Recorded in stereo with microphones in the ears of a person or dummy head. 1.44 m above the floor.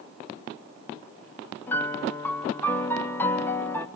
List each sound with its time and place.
1.7 s a piano: 15° left (ahead or behind), 1.4 m